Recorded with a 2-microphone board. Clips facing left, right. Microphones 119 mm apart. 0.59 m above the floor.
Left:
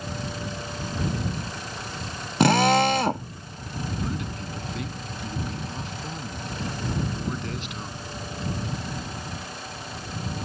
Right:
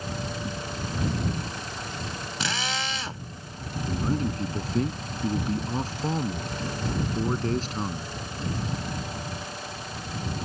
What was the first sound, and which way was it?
A drill, 60° left (ahead or behind).